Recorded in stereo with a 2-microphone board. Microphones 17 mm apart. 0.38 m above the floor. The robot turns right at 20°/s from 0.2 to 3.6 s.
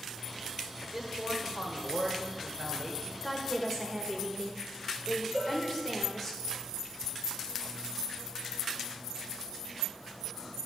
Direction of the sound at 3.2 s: 15° left (ahead or behind).